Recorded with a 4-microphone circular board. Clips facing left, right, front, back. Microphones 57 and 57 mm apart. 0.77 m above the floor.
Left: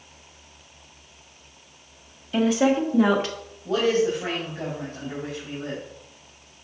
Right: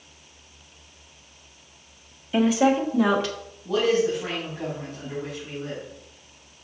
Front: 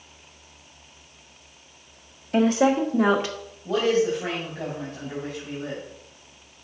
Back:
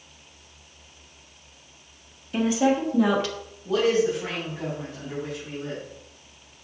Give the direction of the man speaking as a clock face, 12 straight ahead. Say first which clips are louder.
Even, even; 10 o'clock.